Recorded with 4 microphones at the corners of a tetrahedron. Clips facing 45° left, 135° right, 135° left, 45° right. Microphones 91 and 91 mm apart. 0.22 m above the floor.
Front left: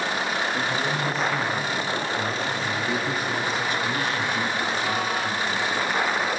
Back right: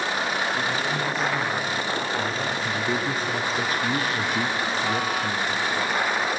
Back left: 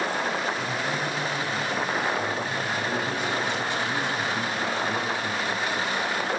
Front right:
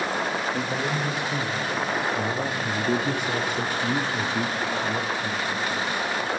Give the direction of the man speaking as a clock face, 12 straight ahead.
1 o'clock.